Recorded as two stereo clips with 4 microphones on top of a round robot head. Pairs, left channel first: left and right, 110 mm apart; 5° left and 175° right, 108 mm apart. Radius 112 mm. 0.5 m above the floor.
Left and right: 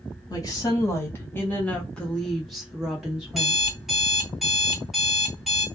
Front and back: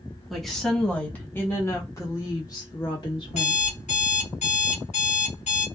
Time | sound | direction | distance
0.3 | a woman speaking | 95° left | 1.4 m
3.3 | an alarm clock | straight ahead | 1.4 m